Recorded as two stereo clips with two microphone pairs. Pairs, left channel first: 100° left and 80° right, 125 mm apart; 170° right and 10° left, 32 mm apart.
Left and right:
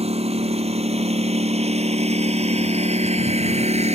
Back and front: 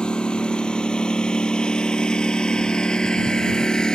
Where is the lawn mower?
110° right; by 4.0 s 105° right.